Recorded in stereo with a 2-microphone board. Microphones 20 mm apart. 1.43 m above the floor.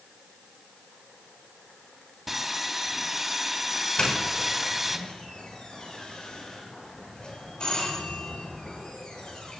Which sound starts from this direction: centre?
Sawing, at 2.3 s.